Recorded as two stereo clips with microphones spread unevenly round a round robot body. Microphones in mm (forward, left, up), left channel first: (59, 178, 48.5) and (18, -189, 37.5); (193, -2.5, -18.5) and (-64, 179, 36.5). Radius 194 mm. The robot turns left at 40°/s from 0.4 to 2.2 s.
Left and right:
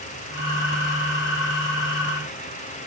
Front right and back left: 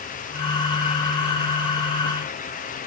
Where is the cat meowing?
I don't hear a cat meowing.